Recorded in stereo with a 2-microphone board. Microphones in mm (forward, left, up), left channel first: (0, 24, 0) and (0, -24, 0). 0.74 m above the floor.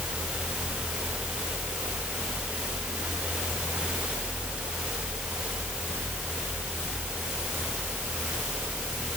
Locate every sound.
Only background noise.